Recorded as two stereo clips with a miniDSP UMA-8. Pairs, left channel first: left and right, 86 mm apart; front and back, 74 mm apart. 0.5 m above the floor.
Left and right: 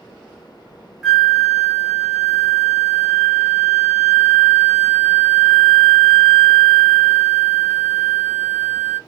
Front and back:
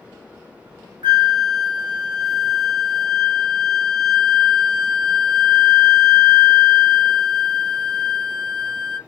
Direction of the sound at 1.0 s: 175° right.